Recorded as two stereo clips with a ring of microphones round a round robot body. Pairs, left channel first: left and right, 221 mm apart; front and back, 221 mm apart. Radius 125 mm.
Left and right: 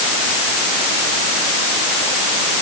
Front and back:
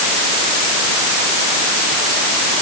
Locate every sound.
Only background noise.